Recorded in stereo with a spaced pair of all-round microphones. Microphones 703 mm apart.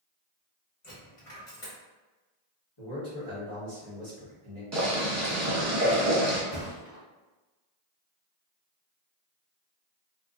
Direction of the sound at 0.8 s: 55° left (ahead or behind).